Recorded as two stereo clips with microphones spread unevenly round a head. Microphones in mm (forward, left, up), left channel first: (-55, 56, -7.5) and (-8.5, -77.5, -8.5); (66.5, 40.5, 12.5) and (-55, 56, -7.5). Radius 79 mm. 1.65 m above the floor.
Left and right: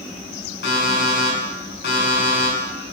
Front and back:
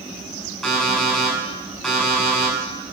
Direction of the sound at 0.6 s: 85° left.